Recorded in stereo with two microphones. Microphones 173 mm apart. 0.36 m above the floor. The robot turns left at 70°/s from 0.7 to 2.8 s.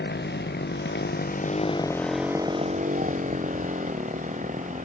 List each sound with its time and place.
0.0 s a motorcycle: 100° left; by 4.8 s 45° right